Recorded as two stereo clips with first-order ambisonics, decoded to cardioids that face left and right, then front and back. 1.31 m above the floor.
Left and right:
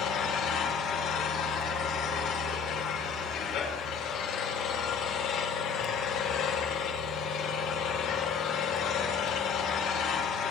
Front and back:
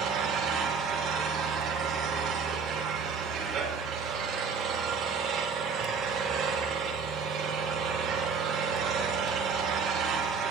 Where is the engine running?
130° left, 4 m.